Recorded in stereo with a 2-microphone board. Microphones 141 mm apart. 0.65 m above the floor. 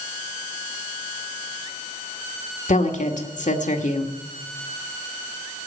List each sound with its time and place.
2.7 s a woman speaking: 60° left (ahead or behind), 1.7 m